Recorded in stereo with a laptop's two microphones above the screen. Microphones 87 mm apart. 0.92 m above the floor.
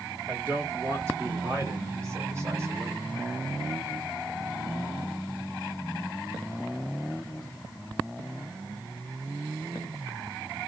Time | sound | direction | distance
0.3 | a man speaking | 25° right (ahead or behind) | 1.7 m